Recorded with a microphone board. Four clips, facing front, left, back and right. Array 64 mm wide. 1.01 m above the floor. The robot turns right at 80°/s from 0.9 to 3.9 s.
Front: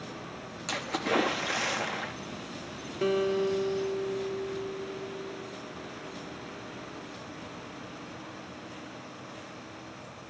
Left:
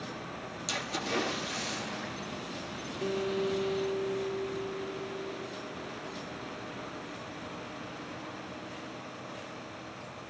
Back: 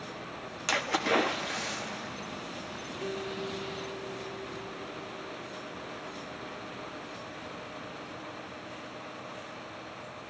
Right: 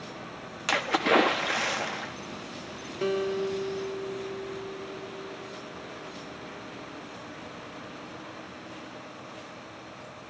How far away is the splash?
About 1.7 m.